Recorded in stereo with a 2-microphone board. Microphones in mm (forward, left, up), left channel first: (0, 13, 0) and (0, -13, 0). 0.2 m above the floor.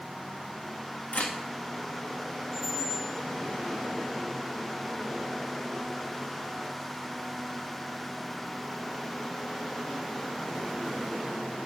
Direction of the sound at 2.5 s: 15° right (ahead or behind).